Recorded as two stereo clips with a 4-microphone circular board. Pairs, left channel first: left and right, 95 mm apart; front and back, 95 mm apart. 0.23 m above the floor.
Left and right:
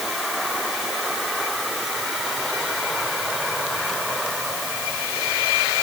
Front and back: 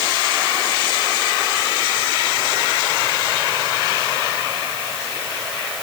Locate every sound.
Only background noise.